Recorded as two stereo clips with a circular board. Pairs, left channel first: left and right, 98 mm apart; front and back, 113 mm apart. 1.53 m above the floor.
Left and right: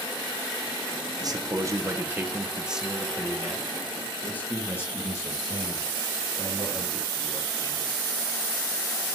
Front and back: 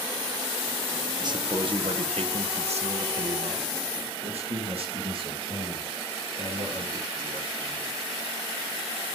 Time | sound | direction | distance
1.2 | a man speaking | 130° right | 1.3 m